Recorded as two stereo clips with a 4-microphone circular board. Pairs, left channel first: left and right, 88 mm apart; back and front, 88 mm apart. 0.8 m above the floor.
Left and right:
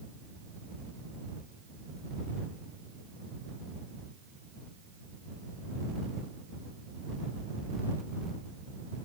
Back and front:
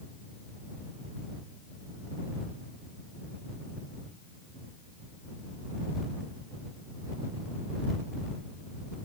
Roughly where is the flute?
I don't hear a flute.